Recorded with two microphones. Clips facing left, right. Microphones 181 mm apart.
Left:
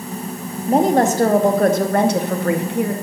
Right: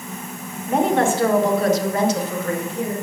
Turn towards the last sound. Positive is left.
turn(degrees=65)  # may be behind; listen again after turning